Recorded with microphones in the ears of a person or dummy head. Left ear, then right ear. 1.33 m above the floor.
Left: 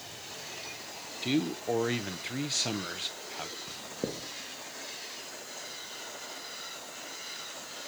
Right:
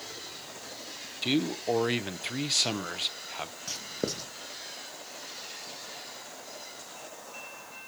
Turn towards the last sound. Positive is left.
turn(degrees=-75)  # may be behind; listen again after turning